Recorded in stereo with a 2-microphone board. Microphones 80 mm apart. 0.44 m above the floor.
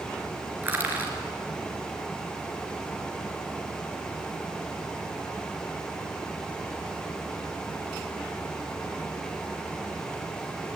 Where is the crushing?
25° right (ahead or behind), 3.5 m.